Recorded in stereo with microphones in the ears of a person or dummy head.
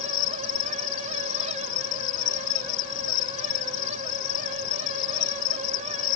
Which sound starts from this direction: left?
An insect, at 0.0 s.